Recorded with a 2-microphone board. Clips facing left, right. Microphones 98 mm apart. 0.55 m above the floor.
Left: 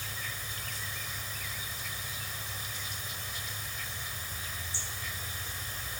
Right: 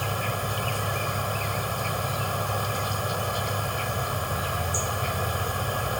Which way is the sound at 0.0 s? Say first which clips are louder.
Right 14 dB; 70° right (ahead or behind).